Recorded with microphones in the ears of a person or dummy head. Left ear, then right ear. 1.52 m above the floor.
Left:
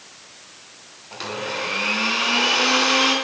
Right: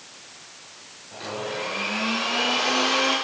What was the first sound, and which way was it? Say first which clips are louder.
A blender: left 3 dB; 60° left (ahead or behind).